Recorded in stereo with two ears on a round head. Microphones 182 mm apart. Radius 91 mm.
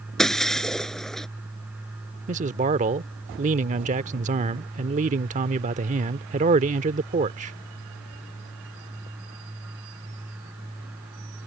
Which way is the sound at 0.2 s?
Centre (ahead or behind).